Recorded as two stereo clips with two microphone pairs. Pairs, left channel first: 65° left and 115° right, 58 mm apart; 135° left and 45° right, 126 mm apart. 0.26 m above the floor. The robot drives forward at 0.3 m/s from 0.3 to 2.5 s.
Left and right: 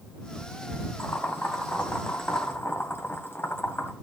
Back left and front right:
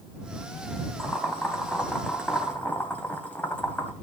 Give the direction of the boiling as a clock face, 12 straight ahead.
10 o'clock.